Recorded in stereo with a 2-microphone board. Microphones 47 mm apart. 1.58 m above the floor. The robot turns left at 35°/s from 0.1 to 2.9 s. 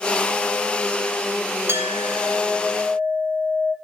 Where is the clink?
120° right, 2.5 m; by 3.7 s 160° right, 2.5 m.